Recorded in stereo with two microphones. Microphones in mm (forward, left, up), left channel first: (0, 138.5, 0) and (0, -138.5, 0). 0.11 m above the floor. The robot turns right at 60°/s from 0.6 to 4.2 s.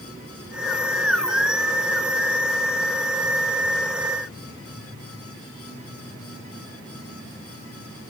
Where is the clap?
No clap in this recording.